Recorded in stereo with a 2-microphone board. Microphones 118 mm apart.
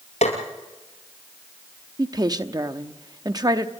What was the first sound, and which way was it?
Tapping, 75° left (ahead or behind).